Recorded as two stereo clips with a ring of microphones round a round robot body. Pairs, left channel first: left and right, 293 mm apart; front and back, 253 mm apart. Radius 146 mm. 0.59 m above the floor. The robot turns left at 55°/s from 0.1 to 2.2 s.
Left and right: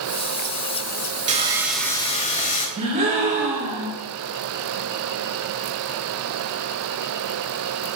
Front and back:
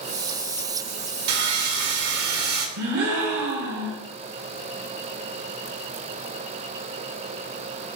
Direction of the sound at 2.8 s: 160° right.